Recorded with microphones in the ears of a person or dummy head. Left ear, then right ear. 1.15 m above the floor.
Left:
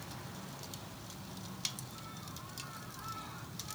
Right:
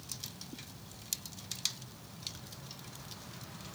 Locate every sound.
Only background noise.